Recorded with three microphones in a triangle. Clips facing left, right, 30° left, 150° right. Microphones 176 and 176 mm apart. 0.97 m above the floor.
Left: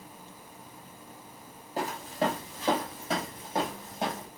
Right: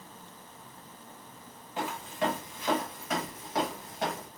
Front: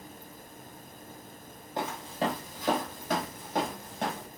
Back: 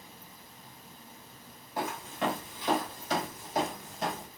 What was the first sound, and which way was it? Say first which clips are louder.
Footsteps: left 2 dB, front 1 dB; 80° left.